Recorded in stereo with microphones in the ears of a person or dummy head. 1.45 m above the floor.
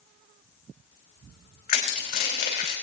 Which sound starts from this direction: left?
Crushing, at 1.7 s.